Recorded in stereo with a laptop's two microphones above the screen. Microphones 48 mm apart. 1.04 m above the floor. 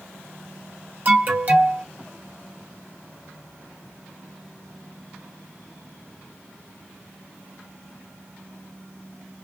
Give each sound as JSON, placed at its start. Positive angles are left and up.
{"t": 1.1, "sound": "an alarm", "side_deg": -40, "distance_m": 0.8}